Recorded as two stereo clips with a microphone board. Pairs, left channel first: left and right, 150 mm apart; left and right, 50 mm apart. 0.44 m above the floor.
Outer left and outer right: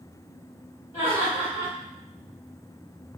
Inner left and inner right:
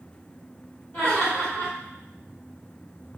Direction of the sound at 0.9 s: 30° left (ahead or behind).